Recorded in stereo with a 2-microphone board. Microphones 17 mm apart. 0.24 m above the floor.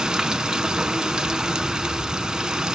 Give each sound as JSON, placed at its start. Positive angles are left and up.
{"t": 0.0, "sound": "running water", "side_deg": -55, "distance_m": 0.7}